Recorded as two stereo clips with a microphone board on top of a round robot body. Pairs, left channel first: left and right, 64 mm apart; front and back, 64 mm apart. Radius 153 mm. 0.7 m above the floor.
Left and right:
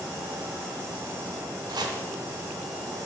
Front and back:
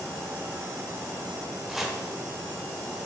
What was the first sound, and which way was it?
Chopping, 95° right.